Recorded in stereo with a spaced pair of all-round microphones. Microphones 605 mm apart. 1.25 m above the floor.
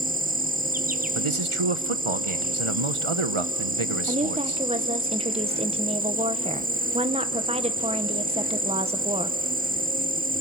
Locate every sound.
0.0 s an insect: 15° right (ahead or behind), 0.7 m
1.1 s a man speaking: 55° right (ahead or behind), 1.0 m
4.1 s a woman speaking: 10° right (ahead or behind), 1.0 m